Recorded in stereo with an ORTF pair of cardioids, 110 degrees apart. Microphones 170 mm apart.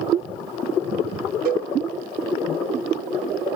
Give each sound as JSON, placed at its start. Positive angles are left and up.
{"t": 1.4, "sound": "a cowbell", "azimuth_deg": -55, "distance_m": 0.9}